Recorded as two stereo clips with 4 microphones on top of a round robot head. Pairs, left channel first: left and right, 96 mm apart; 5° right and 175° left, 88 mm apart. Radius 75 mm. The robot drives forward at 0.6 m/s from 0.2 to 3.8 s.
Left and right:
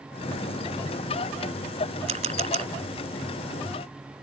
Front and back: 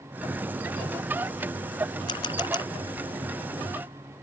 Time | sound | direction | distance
2.1 | a camera shutter | 55° right | ?